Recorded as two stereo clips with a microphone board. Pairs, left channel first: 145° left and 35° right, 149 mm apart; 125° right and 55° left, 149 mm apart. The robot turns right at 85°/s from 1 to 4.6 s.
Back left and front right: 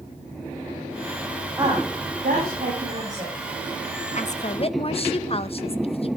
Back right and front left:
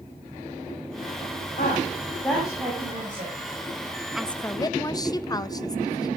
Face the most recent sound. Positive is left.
turn(degrees=180)